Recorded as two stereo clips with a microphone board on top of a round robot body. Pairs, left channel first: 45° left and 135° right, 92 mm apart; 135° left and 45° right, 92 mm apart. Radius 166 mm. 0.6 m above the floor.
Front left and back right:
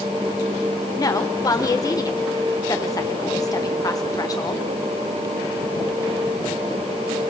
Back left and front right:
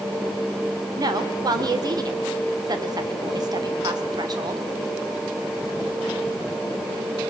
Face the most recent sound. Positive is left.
turn(degrees=-5)